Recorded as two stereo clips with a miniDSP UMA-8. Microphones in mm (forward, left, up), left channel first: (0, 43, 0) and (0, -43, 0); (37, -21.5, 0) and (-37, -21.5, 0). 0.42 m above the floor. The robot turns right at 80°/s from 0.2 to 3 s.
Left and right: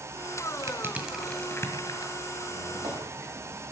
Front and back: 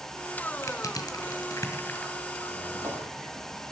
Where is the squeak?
165° right, 6.5 m; by 3.6 s 120° right, 6.5 m.